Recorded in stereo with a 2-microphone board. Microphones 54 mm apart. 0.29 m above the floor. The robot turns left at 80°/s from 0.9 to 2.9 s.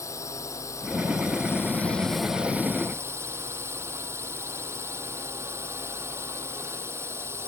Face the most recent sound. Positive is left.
turn(degrees=-55)